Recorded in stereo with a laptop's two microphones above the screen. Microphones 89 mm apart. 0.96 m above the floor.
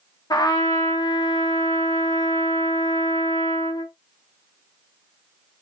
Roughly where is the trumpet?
Left.